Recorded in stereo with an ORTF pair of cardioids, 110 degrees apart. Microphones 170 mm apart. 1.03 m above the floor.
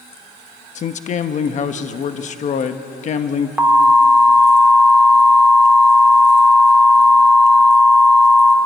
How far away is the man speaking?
About 1.1 m.